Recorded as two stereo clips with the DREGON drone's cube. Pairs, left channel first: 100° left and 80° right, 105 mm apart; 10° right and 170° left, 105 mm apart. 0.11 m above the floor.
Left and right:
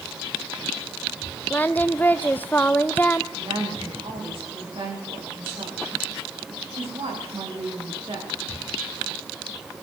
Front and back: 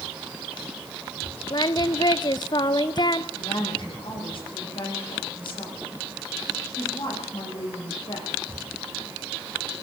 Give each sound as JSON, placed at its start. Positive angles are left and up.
{"t": 1.5, "sound": "singing", "azimuth_deg": 30, "distance_m": 0.6}
{"t": 3.4, "sound": "a woman speaking", "azimuth_deg": -45, "distance_m": 7.5}